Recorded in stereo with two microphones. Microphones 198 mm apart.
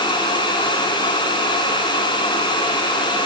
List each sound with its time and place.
Only background noise.